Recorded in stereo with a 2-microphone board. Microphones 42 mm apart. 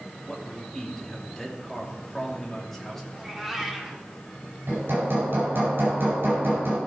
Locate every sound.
0.2 s a man speaking: 10° left (ahead or behind), 2.5 m
3.1 s a cat meowing: 10° right (ahead or behind), 1.5 m
4.7 s hammering: 60° right (ahead or behind), 4.5 m